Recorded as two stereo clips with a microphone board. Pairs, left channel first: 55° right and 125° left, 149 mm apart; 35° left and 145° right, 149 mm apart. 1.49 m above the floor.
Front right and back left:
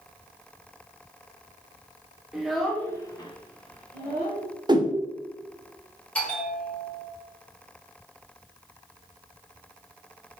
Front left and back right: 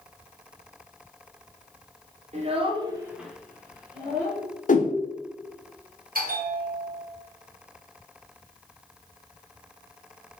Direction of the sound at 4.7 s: 65° left.